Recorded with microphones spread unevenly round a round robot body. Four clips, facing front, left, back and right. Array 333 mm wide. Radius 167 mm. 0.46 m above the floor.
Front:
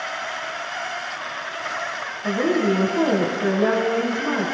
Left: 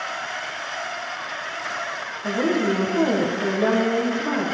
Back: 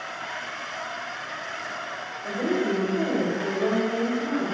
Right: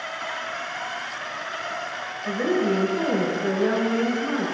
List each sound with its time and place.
2.2 s a woman speaking: 50° left, 5 m